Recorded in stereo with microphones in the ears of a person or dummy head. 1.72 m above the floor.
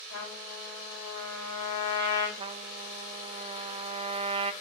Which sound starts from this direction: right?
A trumpet, at 2.4 s.